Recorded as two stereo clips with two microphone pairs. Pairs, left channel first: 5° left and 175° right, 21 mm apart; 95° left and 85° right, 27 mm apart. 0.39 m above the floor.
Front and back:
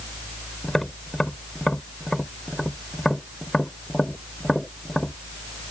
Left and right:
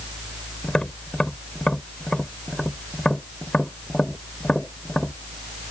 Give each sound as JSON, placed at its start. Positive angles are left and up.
{"t": 0.6, "sound": "tapping", "azimuth_deg": 50}